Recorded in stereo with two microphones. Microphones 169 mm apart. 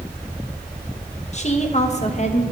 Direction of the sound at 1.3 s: 40° left (ahead or behind).